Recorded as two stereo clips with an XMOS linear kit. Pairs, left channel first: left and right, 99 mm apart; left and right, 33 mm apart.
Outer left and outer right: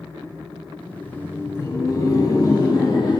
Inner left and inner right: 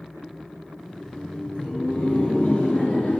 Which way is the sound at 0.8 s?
15° left (ahead or behind).